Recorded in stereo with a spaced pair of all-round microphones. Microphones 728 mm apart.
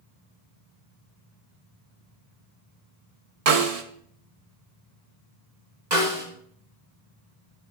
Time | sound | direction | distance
3.5 | a snare drum | 55° right (ahead or behind) | 0.8 m
5.9 | a snare drum | 70° right (ahead or behind) | 1.9 m